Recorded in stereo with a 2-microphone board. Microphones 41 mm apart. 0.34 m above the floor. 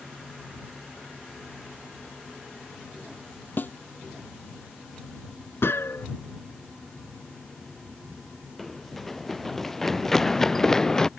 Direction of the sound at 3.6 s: 55° left (ahead or behind).